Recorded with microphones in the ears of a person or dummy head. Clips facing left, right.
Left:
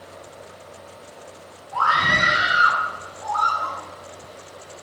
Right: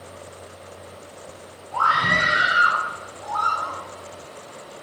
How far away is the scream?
About 5 m.